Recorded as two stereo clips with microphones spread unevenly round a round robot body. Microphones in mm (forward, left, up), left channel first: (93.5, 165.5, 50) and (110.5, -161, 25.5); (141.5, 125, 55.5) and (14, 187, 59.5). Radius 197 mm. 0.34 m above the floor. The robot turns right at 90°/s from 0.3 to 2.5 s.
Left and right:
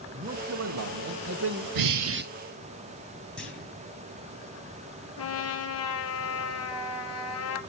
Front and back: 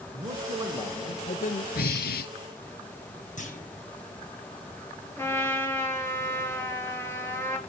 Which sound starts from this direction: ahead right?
Breathing, at 1.8 s.